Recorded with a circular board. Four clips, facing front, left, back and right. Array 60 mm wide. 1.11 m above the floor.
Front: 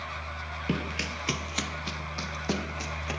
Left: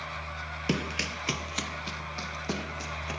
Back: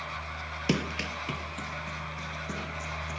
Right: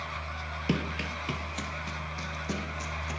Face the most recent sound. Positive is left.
turn(degrees=25)